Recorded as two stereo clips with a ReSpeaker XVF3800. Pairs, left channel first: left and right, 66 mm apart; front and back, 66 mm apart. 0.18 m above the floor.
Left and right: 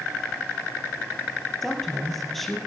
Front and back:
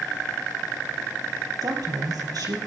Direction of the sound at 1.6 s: 175° left.